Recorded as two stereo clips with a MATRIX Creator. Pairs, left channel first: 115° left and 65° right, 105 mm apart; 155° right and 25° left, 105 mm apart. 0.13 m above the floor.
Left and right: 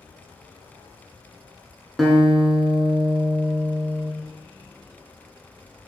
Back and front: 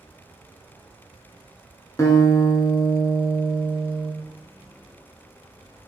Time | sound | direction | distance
2.0 | a guitar | 160° right | 0.7 m